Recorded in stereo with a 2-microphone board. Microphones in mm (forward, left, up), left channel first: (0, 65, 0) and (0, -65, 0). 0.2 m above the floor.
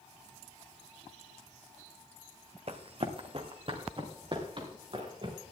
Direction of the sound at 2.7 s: 50° right (ahead or behind).